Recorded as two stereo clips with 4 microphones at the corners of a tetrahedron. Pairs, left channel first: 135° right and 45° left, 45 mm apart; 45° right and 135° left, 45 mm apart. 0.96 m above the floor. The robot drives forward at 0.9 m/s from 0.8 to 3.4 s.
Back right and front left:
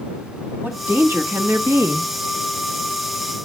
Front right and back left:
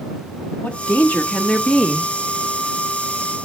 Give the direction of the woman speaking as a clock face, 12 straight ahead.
12 o'clock.